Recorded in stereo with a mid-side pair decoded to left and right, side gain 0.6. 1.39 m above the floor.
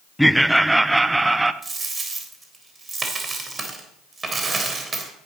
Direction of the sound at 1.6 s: 25° right.